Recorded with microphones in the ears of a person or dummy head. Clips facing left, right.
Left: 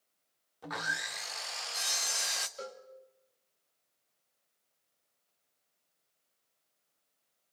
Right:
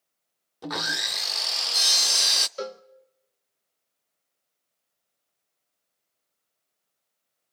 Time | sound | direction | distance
0.6 | sawing | 60° right (ahead or behind) | 0.5 m
2.6 | a cowbell | 70° right (ahead or behind) | 0.8 m